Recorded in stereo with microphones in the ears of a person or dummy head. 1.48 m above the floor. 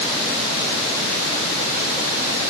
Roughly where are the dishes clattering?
I don't hear dishes clattering.